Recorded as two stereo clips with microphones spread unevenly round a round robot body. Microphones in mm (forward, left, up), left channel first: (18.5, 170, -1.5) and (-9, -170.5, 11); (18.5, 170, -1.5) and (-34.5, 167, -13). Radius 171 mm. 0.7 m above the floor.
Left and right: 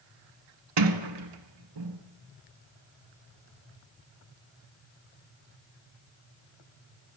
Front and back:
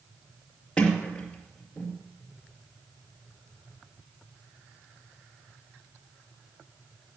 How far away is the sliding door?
About 1.9 m.